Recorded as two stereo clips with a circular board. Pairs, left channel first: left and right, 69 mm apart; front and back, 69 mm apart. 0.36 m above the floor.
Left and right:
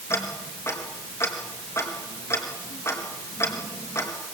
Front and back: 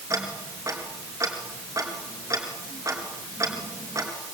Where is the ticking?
135° left, 4 m.